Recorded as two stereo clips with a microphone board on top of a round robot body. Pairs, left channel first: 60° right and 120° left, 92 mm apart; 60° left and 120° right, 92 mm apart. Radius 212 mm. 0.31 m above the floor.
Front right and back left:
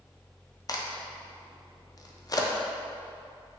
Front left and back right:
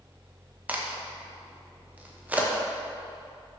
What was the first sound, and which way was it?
A crack, 55° right.